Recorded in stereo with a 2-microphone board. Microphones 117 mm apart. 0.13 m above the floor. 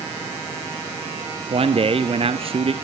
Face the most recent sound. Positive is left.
turn(degrees=-55)  # may be behind; listen again after turning